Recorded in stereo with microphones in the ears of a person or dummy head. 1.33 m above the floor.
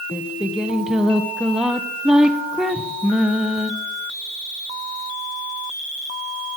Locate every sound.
0.1 s singing: centre (ahead or behind), 0.8 m